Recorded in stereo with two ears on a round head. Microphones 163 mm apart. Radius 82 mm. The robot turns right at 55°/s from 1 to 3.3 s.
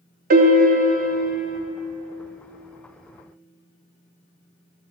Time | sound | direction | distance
0.3 | a piano | 125° right | 0.7 m